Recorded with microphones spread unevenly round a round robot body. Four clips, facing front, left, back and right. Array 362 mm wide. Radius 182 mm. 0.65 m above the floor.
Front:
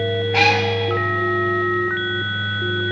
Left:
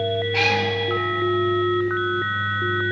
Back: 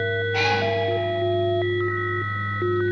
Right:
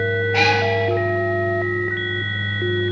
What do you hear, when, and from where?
0.3 s a cat meowing: 10° right, 2.5 m